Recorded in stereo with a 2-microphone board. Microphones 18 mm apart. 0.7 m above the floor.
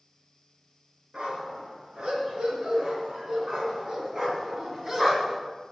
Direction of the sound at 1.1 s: 55° right (ahead or behind).